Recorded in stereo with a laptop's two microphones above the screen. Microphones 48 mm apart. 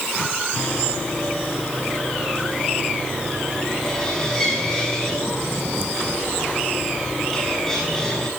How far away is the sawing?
About 6.5 m.